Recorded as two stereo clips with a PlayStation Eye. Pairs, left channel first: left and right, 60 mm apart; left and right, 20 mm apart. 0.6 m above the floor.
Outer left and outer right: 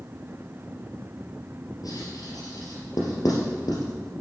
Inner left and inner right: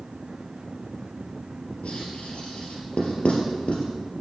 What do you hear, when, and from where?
1.8 s writing: 80° left, 3 m